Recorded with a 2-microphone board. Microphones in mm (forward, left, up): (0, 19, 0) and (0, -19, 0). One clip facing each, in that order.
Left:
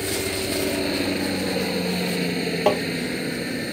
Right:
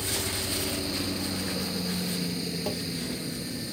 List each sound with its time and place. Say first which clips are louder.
0.0 s a helicopter: left 6 dB; 50° left (ahead or behind)
2.7 s tapping: left 16 dB; 65° left (ahead or behind)